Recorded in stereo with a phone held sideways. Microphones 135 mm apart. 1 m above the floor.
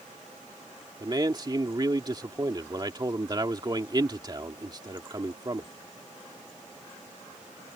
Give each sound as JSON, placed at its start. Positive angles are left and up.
{"t": 1.0, "sound": "a man speaking", "side_deg": -30}